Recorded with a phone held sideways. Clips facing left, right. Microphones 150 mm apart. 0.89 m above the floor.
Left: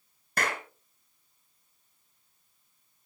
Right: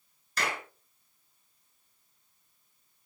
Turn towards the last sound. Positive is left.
turn(degrees=55)  # may be behind; listen again after turning